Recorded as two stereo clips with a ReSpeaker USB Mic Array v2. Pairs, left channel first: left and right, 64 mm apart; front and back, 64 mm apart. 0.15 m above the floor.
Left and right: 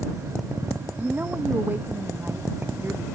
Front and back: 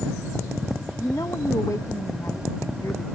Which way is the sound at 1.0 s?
30° right.